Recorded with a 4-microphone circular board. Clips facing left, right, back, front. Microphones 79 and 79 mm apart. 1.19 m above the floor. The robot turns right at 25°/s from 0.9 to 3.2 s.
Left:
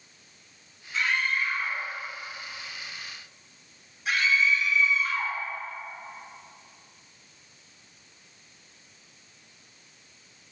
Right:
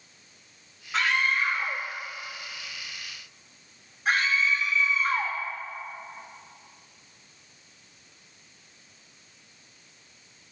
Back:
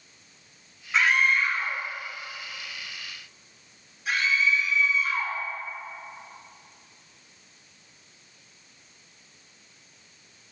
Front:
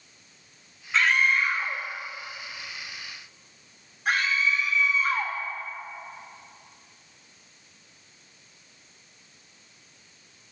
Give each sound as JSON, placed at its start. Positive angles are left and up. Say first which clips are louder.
{"t": 0.9, "sound": "a scream", "louder": "right 2 dB, even", "azimuth_deg": -95, "distance_m": 2.0}